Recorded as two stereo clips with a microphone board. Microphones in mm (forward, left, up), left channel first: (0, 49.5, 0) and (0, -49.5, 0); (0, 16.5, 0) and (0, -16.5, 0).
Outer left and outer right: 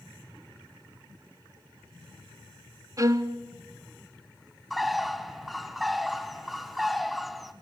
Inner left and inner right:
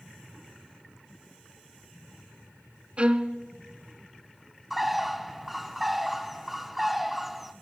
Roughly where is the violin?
Right.